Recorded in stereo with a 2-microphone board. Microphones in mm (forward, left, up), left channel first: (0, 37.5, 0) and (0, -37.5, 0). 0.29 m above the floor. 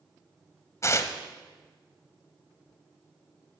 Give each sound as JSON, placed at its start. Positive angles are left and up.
{"t": 0.8, "sound": "tearing paper", "side_deg": 40, "distance_m": 1.0}